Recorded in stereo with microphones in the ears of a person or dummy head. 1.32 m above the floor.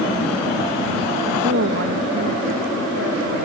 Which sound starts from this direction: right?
A woman speaking, at 1.4 s.